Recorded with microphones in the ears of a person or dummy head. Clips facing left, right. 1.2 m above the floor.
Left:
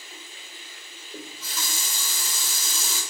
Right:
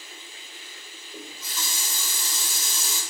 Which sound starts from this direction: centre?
A running tap, at 1.1 s.